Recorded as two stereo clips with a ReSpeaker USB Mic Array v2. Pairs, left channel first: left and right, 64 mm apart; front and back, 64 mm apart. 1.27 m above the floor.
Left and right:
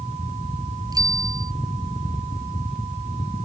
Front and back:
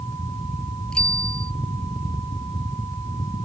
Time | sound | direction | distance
0.9 | a bicycle bell | 75° right | ?